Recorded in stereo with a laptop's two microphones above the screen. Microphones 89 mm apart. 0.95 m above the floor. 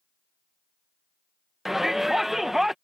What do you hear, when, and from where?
1.6 s a shout: 5° right (ahead or behind)